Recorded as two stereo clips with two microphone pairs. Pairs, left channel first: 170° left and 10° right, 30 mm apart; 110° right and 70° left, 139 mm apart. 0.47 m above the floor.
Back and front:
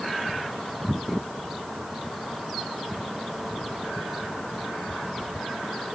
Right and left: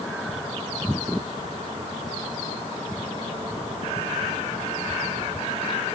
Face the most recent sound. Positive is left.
No sound to turn to.